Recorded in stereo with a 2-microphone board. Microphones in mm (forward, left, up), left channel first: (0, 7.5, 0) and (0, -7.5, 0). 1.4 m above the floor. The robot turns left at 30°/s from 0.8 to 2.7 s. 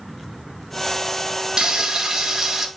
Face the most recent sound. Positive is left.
turn(degrees=-145)